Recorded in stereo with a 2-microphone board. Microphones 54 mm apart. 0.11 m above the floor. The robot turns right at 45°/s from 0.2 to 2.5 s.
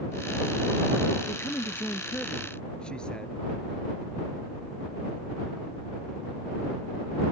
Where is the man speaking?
100° left; by 3.4 s 155° left.